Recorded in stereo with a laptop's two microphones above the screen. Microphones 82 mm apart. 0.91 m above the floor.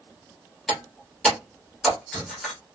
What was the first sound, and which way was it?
Breaking glass, 5° left (ahead or behind).